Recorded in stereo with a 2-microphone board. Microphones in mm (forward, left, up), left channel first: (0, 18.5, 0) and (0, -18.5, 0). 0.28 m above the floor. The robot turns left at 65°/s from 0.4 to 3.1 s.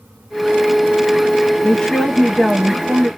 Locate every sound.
1.6 s a woman speaking: 30° left, 1.2 m; by 3.1 s 65° right, 1.2 m